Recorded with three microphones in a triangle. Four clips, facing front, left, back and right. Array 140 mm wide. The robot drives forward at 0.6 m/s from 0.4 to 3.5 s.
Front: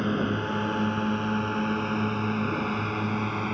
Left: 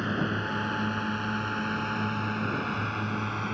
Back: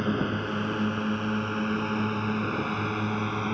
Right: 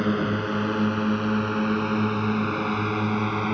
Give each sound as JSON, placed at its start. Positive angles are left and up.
{"t": 0.0, "sound": "a drone", "azimuth_deg": -90}